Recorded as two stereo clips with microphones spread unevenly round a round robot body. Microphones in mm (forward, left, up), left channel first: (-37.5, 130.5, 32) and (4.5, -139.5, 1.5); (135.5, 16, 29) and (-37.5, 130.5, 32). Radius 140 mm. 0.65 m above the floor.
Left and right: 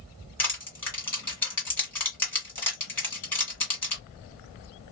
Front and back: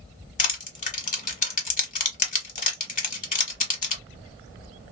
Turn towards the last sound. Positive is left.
turn(degrees=15)